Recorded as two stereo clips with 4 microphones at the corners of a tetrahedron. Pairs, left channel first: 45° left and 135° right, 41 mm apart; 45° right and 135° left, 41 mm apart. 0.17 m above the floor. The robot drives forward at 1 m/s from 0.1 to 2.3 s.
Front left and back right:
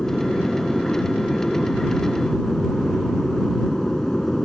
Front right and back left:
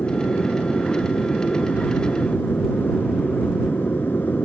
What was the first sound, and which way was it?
An aircraft, 25° right.